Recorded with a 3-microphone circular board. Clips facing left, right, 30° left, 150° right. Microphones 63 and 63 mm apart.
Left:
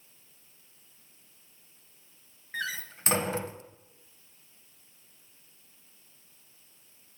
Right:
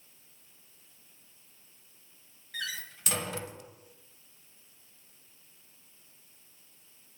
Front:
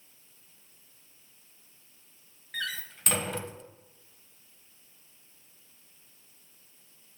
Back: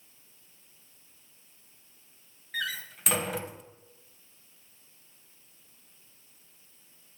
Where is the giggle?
No giggle in this recording.